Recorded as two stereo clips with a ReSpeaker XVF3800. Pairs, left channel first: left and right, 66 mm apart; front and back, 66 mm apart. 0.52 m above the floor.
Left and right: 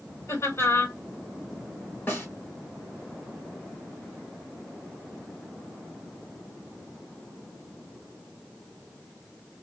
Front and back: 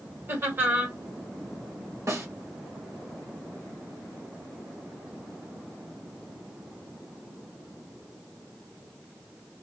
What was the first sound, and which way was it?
Laughter, 130° left.